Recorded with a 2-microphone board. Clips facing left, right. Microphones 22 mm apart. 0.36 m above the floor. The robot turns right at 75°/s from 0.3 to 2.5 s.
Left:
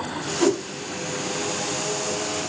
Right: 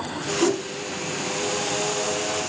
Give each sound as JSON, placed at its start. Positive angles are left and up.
{"t": 0.4, "sound": "a whoosh", "side_deg": 25, "distance_m": 1.5}